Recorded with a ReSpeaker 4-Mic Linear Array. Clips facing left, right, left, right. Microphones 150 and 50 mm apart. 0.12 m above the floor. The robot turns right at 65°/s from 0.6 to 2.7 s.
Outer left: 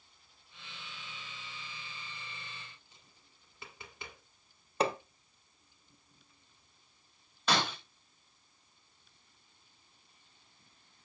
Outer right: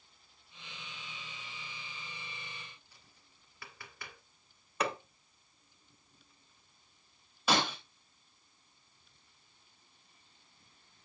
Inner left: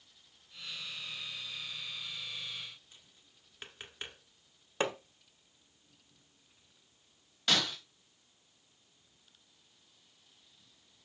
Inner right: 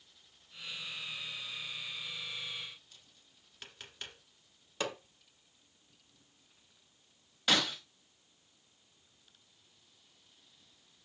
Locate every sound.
2.9 s tapping: 20° left (ahead or behind), 1.7 m
4.8 s hammering: 30° left (ahead or behind), 1.0 m
7.5 s breaking glass: 10° right (ahead or behind), 4 m